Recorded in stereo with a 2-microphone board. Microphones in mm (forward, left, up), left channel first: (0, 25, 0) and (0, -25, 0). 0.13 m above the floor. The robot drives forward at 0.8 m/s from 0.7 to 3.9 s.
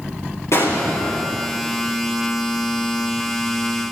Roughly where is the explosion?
Left.